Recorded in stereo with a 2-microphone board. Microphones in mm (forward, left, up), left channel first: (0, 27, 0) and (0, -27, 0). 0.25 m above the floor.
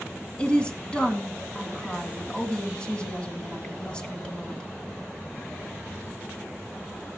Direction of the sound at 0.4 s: 20° left (ahead or behind).